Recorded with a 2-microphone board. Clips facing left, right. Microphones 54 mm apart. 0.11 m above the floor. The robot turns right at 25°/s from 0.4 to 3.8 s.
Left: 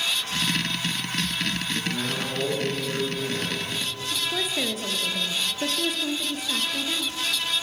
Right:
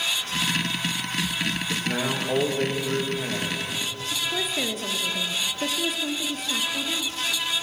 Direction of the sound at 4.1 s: Centre (ahead or behind).